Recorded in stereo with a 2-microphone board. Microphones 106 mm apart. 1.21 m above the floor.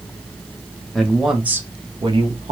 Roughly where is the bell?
No bell in this recording.